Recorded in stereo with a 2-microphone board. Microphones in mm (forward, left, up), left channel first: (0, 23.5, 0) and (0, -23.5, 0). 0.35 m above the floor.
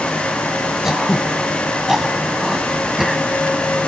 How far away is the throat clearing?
About 1.7 m.